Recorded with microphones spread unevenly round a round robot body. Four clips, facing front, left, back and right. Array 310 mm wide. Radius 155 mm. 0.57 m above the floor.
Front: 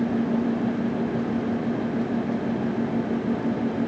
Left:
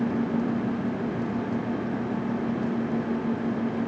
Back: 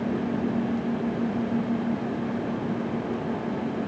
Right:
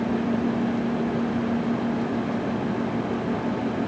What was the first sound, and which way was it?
Only background noise.